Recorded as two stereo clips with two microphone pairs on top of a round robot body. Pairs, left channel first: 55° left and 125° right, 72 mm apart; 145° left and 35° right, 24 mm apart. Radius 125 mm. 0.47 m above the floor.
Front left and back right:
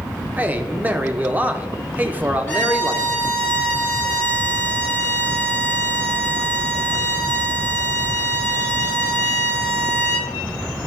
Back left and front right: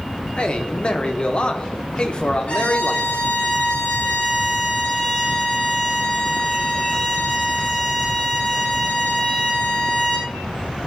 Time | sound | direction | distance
0.4 | a man speaking | straight behind | 1.3 m
2.5 | a violin | 125° left | 5 m